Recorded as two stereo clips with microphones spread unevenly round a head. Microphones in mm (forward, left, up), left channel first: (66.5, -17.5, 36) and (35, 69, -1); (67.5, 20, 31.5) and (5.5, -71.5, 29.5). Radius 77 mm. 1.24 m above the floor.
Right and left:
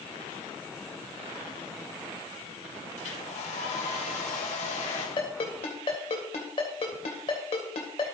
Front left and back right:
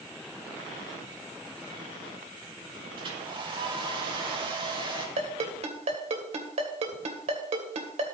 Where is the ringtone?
105° right, 2.5 m.